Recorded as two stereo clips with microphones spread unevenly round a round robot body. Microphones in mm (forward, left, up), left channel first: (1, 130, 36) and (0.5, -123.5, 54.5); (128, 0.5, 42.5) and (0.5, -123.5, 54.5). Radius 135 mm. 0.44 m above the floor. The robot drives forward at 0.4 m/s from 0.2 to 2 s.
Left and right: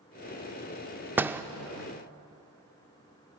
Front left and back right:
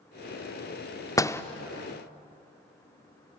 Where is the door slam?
5° right, 0.8 m; by 1.4 s 10° right, 0.7 m.